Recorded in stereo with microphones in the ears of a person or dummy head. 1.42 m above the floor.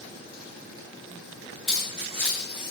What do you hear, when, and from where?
1.7 s keys jangling: 5° left (ahead or behind), 1.7 m; by 2.7 s 10° left (ahead or behind), 2.5 m